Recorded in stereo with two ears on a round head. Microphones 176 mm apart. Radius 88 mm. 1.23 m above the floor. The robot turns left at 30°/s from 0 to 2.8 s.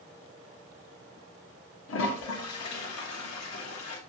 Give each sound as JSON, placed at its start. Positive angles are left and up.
{"t": 1.9, "sound": "a toilet flushing", "side_deg": 75, "distance_m": 1.1}